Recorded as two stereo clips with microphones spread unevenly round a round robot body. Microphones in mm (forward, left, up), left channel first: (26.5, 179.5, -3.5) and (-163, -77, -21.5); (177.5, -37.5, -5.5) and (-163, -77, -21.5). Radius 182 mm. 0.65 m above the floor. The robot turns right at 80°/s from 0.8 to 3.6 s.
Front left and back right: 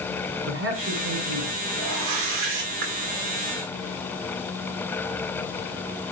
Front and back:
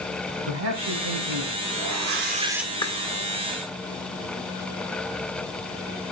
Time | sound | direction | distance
0.5 | a man speaking | 175° right | 4.5 m
1.8 | a whoosh | 155° right | 1.8 m